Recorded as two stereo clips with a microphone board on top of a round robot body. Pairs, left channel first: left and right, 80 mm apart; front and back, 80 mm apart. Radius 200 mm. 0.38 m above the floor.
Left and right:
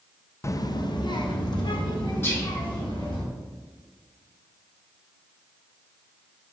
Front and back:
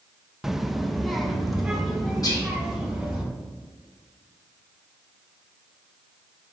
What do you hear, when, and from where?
0.4 s a child speaking: 95° left, 0.6 m; by 3.2 s 90° left, 4 m
2.2 s whispering: 30° left, 3.5 m